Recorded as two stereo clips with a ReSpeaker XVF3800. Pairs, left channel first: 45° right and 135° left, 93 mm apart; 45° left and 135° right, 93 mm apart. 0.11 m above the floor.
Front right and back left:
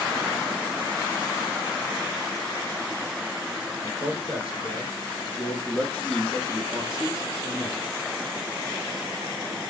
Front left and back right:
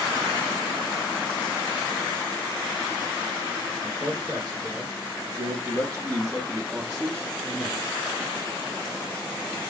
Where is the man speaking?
85° right, 2.5 m; by 8.0 s 175° left, 1.5 m.